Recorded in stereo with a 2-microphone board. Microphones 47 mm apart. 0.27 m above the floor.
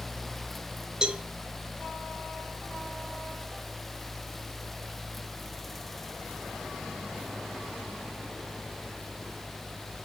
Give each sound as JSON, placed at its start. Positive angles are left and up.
{"t": 1.0, "sound": "a cowbell", "side_deg": -15, "distance_m": 1.0}